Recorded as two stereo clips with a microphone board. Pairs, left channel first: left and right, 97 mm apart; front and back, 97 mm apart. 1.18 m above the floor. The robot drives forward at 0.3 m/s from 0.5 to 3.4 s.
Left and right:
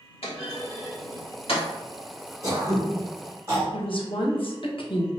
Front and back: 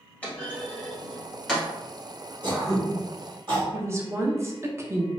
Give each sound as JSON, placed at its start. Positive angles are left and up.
{"t": 0.2, "sound": "a clunk", "azimuth_deg": 75, "distance_m": 1.7}
{"t": 2.4, "sound": "throat clearing", "azimuth_deg": -145, "distance_m": 1.6}
{"t": 3.7, "sound": "a woman speaking", "azimuth_deg": 115, "distance_m": 0.8}